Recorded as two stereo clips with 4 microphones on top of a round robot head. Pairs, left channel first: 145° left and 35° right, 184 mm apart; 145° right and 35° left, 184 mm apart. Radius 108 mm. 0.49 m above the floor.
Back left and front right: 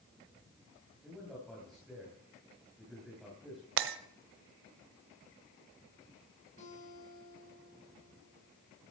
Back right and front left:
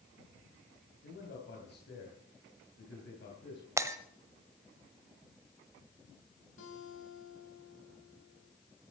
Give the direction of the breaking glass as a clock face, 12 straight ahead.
1 o'clock.